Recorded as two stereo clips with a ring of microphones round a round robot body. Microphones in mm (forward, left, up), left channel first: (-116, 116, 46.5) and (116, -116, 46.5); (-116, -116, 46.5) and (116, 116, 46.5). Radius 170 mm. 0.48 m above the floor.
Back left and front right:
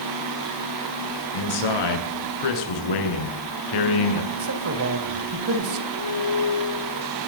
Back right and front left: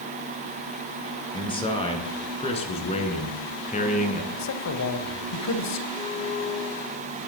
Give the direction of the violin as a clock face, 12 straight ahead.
7 o'clock.